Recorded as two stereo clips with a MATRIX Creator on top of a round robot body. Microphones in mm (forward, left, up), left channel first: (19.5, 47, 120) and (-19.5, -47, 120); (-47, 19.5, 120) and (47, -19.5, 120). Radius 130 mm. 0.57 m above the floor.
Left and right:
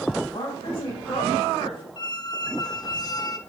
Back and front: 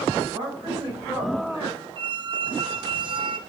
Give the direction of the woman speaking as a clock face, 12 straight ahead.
11 o'clock.